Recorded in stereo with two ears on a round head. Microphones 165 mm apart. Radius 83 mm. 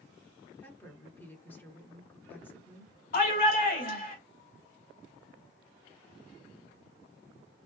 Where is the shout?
50° left (ahead or behind), 1.9 m.